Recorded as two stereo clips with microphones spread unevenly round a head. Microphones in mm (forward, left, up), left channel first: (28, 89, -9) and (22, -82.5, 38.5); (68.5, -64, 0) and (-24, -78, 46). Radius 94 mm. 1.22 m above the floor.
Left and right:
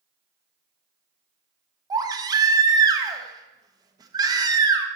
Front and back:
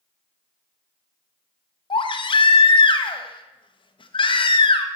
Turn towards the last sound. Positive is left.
turn(degrees=-25)